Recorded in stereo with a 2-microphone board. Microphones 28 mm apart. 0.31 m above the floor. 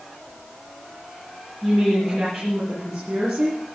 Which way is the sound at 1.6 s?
60° right (ahead or behind).